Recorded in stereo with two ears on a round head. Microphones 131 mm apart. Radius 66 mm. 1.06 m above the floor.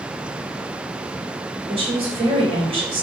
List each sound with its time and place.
1.7 s a woman speaking: 40° right (ahead or behind), 3.5 m